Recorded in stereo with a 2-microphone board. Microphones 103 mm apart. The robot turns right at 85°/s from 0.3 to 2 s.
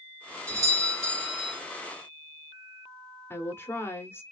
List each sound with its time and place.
0.5 s a doorbell: 25° right (ahead or behind), 2.5 m; by 1.6 s 10° right (ahead or behind), 2.5 m
3.3 s a woman speaking: 20° left (ahead or behind), 1.2 m